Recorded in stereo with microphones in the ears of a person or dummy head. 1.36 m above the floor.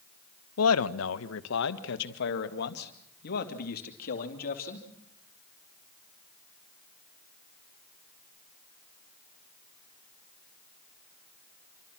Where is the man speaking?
80° left, 1.2 m; by 4.8 s 50° left (ahead or behind), 3 m.